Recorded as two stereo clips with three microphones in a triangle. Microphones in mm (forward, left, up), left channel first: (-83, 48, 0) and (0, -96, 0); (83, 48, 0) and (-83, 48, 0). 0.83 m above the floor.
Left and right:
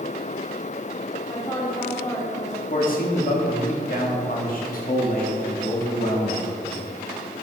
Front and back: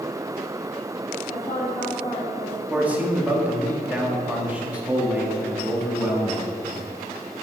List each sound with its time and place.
1.3 s a woman speaking: 55° left, 1.7 m
2.7 s a man speaking: 100° left, 1.6 m